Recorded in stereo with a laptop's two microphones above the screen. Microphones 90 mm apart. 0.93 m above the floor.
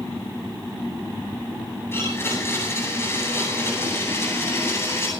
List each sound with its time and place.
1.9 s a blender: 30° left (ahead or behind), 9.5 m